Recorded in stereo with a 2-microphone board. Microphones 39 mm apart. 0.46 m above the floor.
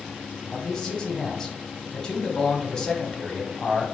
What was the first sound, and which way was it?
A man speaking, 15° left (ahead or behind).